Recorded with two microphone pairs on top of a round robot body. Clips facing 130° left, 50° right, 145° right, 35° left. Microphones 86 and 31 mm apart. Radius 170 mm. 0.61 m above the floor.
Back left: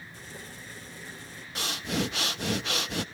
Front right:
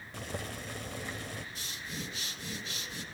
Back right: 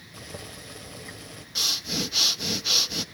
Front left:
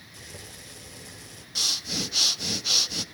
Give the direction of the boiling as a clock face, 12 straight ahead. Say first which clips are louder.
Front right 9 dB, back right 4 dB; 3 o'clock.